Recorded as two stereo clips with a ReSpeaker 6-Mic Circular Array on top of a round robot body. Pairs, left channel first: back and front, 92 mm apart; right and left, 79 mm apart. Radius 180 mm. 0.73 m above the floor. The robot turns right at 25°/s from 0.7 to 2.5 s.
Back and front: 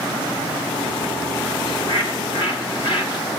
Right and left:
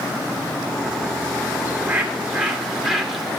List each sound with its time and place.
1.6 s a bird: 155° left, 3.5 m; by 3.3 s 175° left, 3.5 m